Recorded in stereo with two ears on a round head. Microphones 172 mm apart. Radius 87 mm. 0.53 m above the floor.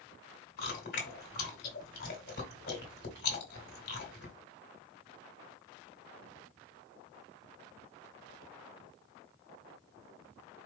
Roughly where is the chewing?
Left.